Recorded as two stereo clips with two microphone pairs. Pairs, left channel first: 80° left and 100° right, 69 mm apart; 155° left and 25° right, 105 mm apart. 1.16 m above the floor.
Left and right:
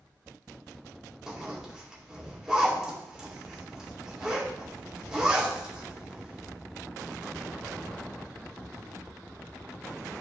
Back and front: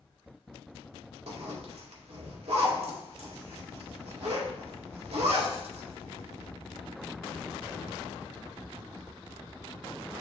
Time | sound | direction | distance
1.3 | a zipper | 20° right | 1.9 m